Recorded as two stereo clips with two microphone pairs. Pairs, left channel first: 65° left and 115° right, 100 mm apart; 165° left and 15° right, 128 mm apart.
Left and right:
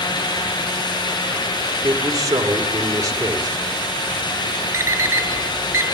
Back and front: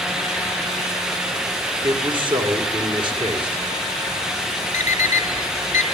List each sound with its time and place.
1.8 s a man speaking: 65° right, 3 m
4.7 s an alarm clock: straight behind, 1.7 m